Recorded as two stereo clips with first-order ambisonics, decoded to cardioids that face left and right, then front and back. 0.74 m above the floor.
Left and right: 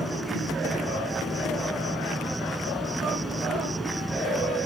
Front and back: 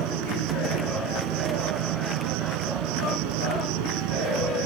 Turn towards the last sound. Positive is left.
turn(degrees=-175)